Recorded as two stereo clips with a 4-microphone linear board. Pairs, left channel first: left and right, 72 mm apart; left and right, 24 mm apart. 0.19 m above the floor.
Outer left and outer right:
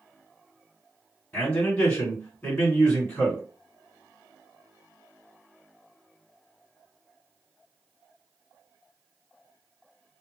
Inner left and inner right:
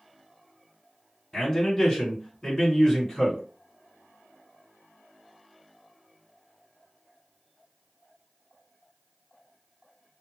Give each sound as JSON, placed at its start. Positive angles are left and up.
{"t": 1.3, "sound": "a man speaking", "side_deg": 30, "distance_m": 1.9}